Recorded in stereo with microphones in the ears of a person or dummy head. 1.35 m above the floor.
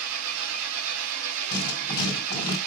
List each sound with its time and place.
0.0 s an engine running: 75° right (ahead or behind), 2.5 m
1.5 s writing: 30° left (ahead or behind), 3 m